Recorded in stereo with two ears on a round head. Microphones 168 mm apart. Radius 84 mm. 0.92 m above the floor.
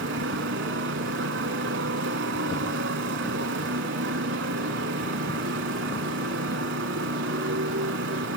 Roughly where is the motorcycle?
Right.